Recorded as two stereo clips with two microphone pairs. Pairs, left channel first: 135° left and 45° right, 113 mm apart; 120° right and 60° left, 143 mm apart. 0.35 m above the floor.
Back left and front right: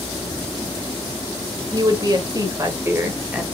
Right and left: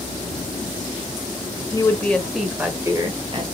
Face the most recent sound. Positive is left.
turn(degrees=30)